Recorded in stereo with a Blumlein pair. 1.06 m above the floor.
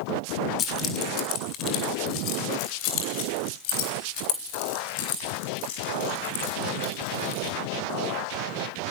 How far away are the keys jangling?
About 2 m.